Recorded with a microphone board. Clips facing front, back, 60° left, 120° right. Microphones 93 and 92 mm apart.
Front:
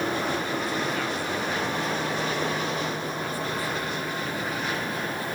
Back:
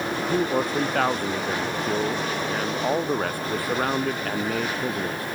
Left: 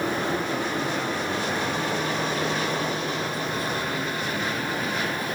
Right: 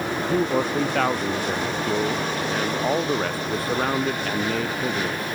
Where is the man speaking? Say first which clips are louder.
Back 5 dB, right 5 dB; 140° right; by 5.2 s 150° right.